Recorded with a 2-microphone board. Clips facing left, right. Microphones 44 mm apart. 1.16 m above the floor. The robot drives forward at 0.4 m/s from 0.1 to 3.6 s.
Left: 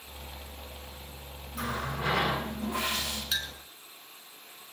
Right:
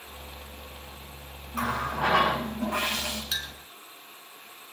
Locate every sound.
1.5 s a running tap: 75° right (ahead or behind), 6 m; by 3.2 s 80° right, 5.5 m
3.3 s a clink: 5° left (ahead or behind), 1.5 m